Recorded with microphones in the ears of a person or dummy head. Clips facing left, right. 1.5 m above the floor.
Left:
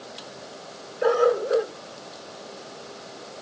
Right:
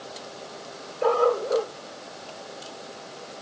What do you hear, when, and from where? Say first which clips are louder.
1.0 s a dog barking: left 2 dB; 15° left (ahead or behind); by 3.4 s 25° left (ahead or behind)